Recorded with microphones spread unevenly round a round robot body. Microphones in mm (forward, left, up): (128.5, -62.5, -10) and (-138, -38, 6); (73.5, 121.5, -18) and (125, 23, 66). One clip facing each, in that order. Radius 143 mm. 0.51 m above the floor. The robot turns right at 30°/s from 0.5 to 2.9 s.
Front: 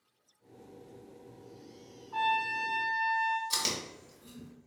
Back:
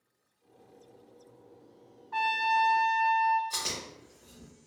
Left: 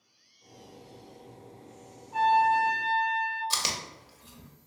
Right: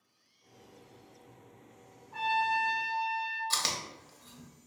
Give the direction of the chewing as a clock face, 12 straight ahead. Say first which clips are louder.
Front 2 dB, left 1 dB; 10 o'clock.